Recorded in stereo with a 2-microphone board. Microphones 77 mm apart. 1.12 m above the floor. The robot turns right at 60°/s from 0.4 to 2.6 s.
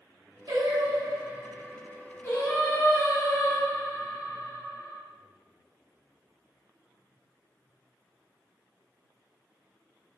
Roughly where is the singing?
Right.